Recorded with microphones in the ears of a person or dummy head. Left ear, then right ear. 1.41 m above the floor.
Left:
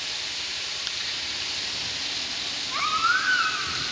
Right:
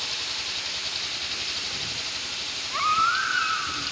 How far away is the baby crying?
About 3.5 m.